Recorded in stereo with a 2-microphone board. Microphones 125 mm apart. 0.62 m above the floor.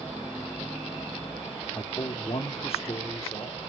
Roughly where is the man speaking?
Left.